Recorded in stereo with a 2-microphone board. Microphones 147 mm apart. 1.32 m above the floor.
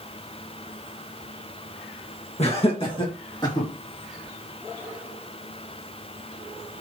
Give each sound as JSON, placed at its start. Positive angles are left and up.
{"t": 2.4, "sound": "laughter", "side_deg": 45, "distance_m": 1.8}